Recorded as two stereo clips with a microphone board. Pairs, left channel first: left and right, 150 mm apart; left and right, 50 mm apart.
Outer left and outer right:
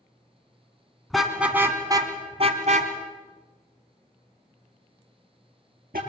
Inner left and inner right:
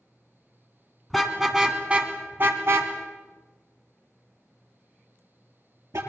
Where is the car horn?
Centre (ahead or behind), 2.5 m; by 6.0 s 80° right, 5.5 m.